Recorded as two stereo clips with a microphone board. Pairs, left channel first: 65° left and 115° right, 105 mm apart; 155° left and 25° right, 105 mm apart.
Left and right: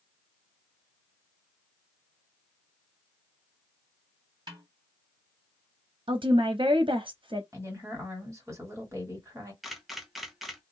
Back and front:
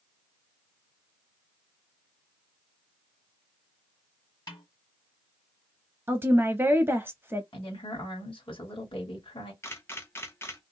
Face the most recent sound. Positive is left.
turn(degrees=160)